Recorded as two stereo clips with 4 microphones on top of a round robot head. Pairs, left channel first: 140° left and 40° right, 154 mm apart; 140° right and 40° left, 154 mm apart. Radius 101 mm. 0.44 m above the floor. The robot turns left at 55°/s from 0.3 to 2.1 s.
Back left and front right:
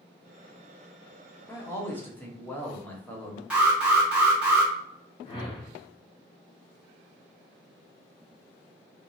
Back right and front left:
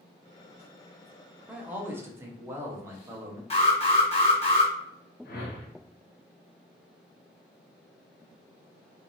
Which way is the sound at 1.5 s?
110° left.